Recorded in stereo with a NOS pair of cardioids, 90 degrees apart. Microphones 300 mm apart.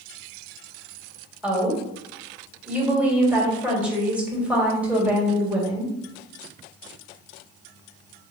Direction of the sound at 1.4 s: 5° right.